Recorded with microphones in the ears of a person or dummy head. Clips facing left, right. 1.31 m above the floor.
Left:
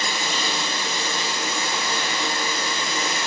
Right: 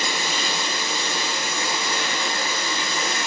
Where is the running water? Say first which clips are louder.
Even; 30° left (ahead or behind), 1.1 m.